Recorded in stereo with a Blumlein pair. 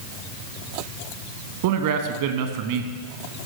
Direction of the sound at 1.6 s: 50° right.